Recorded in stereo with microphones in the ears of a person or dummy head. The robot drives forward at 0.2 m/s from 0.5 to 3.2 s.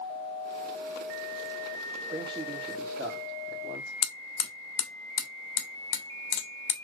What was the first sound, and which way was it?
A man speaking, 30° right (ahead or behind).